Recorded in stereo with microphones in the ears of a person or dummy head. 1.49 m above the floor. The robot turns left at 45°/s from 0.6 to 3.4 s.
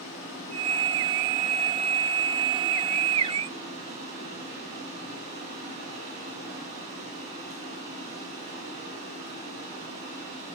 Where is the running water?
80° left, 3.5 m; by 10.6 s 45° right, 3.5 m.